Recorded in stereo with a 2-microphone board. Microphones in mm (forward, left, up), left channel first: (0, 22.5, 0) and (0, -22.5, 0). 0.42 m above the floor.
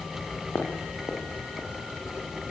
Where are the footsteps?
80° left, 8.5 m; by 1.7 s 75° left (ahead or behind), 8.5 m.